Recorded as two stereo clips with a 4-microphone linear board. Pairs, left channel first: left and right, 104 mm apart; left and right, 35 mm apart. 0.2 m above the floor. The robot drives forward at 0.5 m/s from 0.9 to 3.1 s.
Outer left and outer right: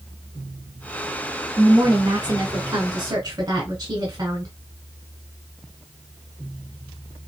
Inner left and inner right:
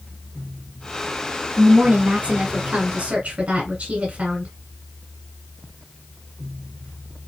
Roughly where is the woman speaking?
Right.